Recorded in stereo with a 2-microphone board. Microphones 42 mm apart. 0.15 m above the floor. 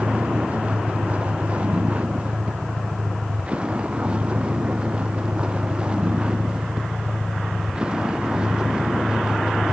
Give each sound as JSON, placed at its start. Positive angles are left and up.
{"t": 0.0, "sound": "a vehicle", "side_deg": -30}